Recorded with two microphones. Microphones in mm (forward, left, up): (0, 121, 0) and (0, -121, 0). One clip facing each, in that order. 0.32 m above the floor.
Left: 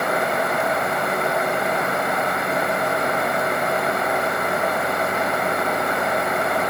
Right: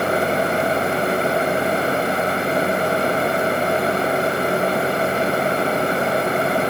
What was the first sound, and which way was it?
Only background noise.